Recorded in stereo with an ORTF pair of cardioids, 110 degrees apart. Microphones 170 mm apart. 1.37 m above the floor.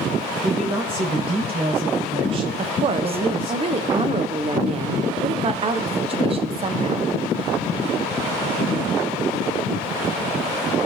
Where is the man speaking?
30° right, 1.9 m.